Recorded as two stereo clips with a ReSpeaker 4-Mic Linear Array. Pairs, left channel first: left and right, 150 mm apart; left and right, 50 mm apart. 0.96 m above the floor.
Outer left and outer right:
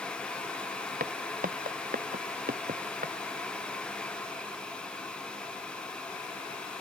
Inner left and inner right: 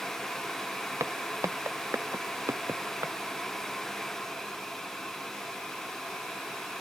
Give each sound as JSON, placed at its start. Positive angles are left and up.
{"t": 1.0, "sound": "footsteps", "side_deg": -75}